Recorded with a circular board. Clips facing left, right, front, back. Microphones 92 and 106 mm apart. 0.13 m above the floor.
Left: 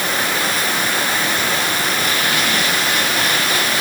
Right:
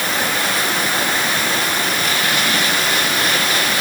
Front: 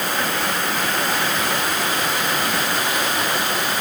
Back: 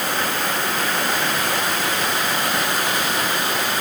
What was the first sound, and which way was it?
Only background noise.